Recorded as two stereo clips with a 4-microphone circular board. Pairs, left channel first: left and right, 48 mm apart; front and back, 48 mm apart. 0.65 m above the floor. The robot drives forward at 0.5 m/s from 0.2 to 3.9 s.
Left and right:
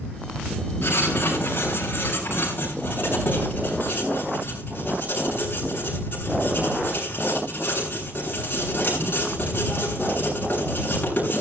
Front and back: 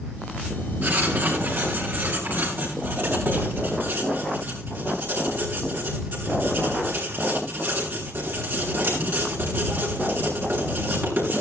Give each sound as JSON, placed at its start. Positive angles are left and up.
{"t": 0.8, "sound": "writing", "azimuth_deg": 135, "distance_m": 7.0}